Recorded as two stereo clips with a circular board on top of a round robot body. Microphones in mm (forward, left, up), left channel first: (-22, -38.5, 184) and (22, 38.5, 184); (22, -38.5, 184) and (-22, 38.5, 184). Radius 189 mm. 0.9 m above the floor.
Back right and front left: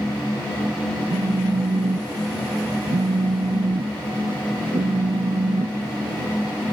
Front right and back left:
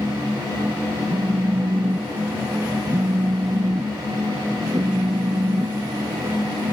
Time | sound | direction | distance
1.1 | a phone buzzing | 65° left | ?